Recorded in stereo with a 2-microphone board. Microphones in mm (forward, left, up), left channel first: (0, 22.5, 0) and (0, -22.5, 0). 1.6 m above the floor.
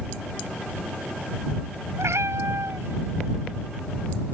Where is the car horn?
I don't hear a car horn.